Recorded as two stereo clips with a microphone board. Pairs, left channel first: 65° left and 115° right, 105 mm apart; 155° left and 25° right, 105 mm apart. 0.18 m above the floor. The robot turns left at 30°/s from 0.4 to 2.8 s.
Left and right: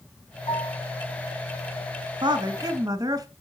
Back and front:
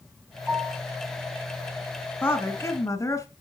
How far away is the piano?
About 4.5 m.